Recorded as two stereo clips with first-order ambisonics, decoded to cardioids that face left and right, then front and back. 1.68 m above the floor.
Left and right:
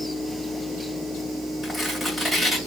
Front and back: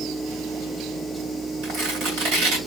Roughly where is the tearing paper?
Behind.